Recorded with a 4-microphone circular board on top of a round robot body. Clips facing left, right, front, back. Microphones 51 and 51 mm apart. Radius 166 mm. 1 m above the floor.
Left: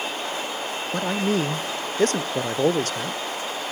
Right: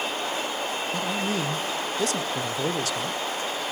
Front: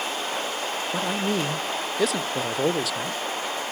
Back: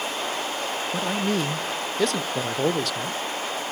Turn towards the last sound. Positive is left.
turn(degrees=85)